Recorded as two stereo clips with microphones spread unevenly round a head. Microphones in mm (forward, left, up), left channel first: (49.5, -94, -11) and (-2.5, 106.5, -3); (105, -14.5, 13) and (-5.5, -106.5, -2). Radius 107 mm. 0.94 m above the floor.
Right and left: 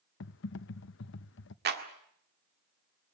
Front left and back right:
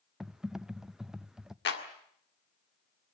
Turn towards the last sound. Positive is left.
turn(degrees=65)